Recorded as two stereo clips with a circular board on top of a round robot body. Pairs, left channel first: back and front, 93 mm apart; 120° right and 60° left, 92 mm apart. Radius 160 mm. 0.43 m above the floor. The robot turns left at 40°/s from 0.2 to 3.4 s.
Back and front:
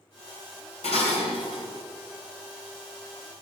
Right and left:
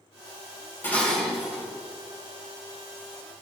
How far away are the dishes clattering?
About 1.8 m.